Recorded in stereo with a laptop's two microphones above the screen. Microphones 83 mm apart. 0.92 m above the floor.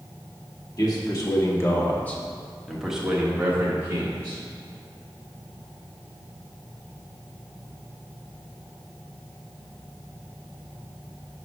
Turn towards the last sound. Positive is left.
turn(degrees=-40)  # may be behind; listen again after turning